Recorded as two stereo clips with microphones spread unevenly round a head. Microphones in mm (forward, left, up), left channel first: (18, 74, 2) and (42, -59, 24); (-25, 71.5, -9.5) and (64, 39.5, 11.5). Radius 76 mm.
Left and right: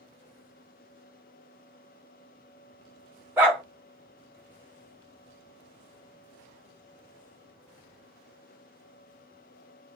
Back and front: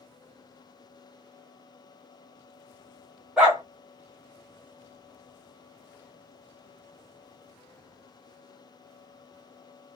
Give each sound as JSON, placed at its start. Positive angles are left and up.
{"t": 3.4, "sound": "a dog barking", "azimuth_deg": -55, "distance_m": 1.1}